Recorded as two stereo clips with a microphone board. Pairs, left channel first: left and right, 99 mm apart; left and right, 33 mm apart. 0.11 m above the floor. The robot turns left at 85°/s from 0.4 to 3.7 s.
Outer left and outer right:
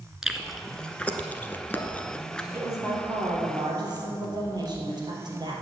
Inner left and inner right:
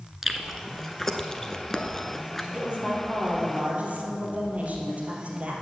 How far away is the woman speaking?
About 3 m.